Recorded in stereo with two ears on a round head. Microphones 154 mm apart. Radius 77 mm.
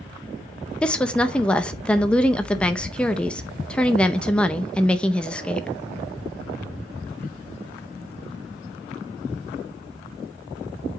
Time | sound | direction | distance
0.8 | a woman speaking | 5° left (ahead or behind) | 0.6 m